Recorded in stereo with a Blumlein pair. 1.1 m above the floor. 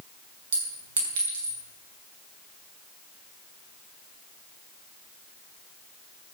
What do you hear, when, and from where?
0.5 s a clink: 60° right, 5.5 m